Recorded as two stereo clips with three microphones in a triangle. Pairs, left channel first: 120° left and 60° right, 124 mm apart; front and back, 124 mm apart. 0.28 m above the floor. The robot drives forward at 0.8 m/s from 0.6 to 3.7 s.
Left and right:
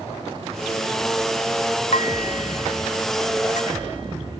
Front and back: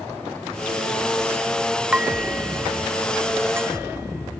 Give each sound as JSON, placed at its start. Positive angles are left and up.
{"t": 1.9, "sound": "dishes clattering", "azimuth_deg": 100}